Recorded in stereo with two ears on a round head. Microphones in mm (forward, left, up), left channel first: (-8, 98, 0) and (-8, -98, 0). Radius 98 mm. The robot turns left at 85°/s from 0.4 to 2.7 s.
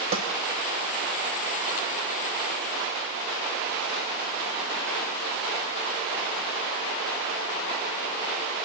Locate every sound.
0.1 s a snare drum: 65° right (ahead or behind), 2.5 m